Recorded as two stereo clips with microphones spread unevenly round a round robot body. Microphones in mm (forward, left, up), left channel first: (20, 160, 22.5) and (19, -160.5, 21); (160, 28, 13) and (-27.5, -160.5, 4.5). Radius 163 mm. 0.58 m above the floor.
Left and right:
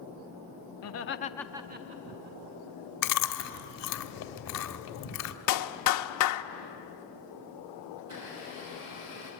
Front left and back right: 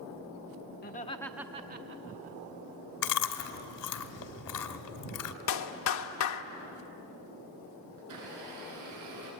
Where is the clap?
70° left, 1.1 m.